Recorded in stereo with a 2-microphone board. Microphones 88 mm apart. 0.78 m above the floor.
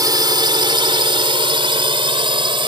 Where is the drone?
50° right (ahead or behind); by 2.7 s 70° right (ahead or behind).